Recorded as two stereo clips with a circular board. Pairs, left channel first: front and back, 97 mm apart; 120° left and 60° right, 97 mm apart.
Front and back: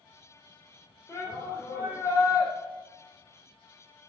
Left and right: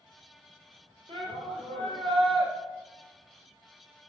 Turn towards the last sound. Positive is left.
turn(degrees=-60)